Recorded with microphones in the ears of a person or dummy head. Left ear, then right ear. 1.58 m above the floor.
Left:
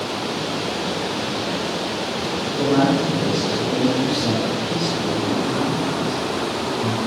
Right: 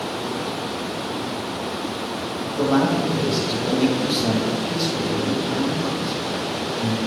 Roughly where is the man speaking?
Right.